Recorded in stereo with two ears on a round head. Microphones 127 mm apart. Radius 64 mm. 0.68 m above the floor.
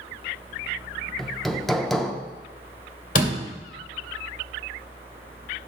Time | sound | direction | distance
1.2 | hammering | centre (ahead or behind) | 0.6 m
3.1 | a door slam | 65° left (ahead or behind) | 1.8 m